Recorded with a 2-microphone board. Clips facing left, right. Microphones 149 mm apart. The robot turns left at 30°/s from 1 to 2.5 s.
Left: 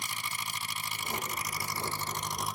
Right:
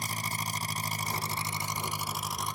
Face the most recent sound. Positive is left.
turn(degrees=180)